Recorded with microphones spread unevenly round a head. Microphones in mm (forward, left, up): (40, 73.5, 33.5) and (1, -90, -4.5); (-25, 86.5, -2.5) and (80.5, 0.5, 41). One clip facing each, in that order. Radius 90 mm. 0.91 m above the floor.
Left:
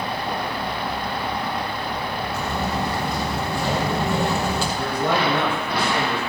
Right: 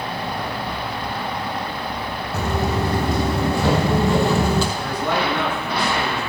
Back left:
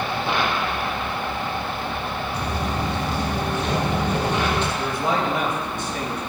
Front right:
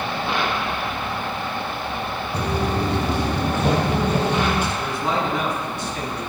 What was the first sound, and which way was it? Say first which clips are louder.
Footsteps: right 5 dB, front right 6 dB; 45° right.